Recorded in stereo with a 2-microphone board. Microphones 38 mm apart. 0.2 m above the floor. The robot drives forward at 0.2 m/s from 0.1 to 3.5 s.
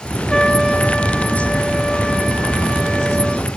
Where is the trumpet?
15° left (ahead or behind), 1.6 m; by 3.5 s 10° left (ahead or behind), 2 m.